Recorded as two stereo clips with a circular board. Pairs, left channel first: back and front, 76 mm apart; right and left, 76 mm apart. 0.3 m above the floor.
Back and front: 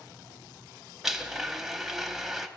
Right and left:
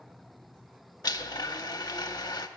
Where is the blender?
85° right, 0.6 m.